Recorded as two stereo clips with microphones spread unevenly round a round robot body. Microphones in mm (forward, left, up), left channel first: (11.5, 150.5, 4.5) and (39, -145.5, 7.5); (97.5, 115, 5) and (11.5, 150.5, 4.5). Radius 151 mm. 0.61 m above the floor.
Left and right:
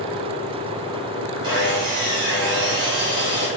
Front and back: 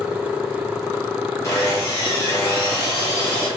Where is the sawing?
25° right, 1.2 m.